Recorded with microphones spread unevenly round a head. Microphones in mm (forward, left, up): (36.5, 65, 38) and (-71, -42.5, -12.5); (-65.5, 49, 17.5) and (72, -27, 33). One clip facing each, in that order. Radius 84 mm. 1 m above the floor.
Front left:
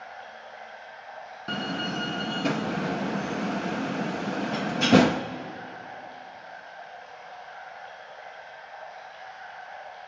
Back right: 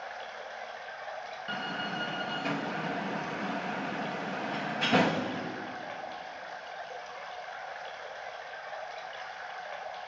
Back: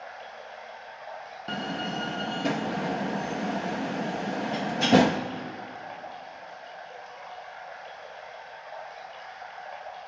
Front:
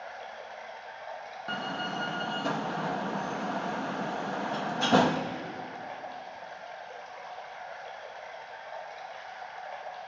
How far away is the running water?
About 4.5 m.